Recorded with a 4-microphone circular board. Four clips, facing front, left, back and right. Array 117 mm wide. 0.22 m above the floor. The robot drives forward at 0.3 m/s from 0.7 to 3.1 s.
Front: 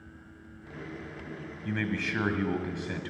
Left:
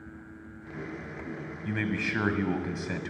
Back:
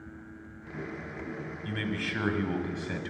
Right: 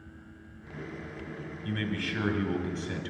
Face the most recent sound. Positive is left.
turn(degrees=105)